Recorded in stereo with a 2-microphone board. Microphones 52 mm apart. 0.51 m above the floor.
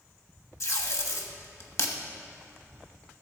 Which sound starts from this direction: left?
Tape being pulled, at 0.6 s.